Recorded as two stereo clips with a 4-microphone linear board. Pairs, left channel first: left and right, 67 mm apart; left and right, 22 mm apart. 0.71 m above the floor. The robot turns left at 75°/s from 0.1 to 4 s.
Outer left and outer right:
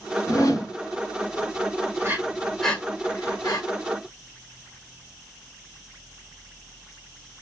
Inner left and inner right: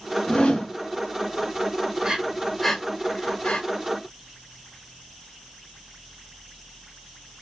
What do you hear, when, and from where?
0.3 s a whoosh: 95° left, 2.5 m; by 0.7 s 65° left, 2.5 m
2.0 s breathing: 40° right (ahead or behind), 1.1 m; by 3.6 s 80° left, 1.1 m